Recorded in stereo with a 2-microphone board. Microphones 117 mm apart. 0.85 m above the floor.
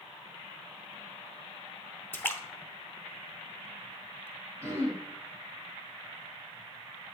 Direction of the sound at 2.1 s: 15° left (ahead or behind).